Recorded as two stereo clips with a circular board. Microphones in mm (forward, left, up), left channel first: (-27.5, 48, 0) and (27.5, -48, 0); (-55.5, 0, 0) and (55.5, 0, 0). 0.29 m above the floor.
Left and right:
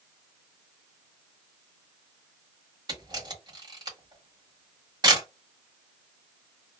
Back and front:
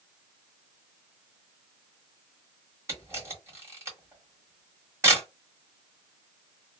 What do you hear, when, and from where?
2.9 s a camera shutter: 50° right, 1.4 m